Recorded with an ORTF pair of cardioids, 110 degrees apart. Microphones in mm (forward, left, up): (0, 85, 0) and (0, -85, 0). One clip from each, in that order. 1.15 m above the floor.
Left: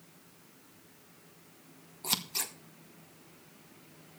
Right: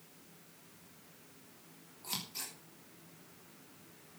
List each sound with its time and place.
2.0 s scissors: 60° left, 2.0 m